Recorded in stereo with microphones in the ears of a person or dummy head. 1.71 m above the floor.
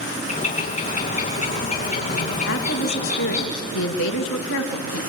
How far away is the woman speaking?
About 2.5 m.